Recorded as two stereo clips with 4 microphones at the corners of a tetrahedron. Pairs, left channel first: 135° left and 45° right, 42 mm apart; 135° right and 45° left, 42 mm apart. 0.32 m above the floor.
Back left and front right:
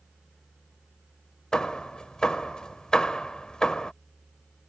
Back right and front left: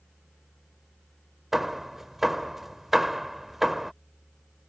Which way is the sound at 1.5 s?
115° left.